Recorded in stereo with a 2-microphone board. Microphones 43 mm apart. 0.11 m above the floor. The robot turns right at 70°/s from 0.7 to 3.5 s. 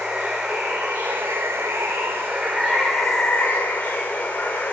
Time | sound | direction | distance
0.0 | running water | 165° right | 1.4 m